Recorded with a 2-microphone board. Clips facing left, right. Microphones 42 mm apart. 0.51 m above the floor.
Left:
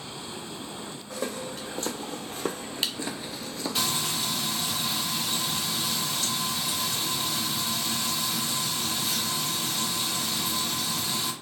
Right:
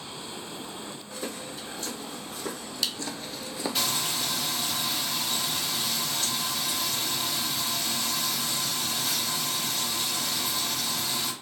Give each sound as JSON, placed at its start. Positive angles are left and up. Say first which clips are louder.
{"t": 1.1, "sound": "footsteps", "louder": "left 5 dB", "side_deg": 70, "distance_m": 1.3}
{"t": 3.8, "sound": "frying", "louder": "left 2 dB", "side_deg": 5, "distance_m": 1.3}